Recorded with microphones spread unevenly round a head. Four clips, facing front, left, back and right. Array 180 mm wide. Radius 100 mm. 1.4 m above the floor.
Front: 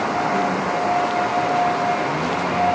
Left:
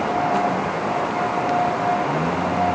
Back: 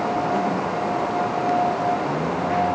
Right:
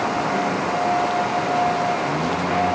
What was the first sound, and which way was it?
Only background noise.